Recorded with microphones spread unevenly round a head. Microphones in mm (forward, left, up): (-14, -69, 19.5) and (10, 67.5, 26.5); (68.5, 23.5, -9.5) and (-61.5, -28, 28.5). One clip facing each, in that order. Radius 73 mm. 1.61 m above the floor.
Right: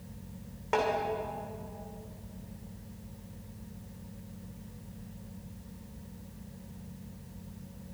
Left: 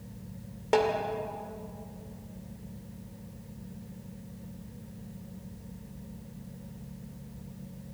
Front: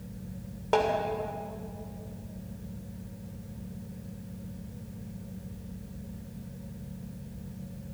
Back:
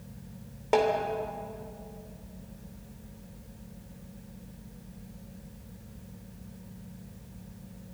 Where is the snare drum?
130° left, 2.5 m.